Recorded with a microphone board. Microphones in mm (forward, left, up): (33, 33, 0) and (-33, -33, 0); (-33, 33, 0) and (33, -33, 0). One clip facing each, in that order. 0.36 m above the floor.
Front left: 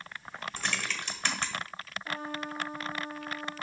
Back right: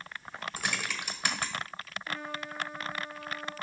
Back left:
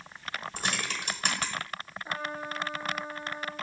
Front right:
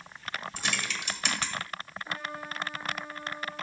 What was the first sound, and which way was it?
Typing on a keyboard, 150° left.